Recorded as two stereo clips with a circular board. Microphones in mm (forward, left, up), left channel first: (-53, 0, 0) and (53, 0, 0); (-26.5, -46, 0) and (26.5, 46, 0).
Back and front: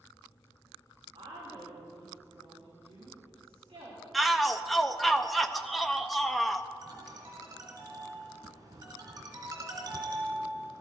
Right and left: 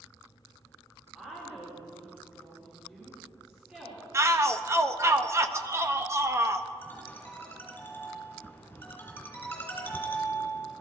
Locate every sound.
1.1 s a woman speaking: 20° right, 5 m
4.1 s a shout: 90° left, 0.9 m
6.8 s a ringtone: 50° right, 3 m